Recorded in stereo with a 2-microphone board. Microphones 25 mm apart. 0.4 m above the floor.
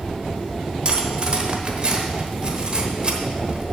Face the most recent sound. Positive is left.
turn(degrees=-35)  # may be behind; listen again after turning